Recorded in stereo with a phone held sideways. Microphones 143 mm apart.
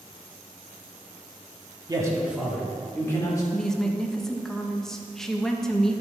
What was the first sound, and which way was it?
A man speaking, 25° right (ahead or behind).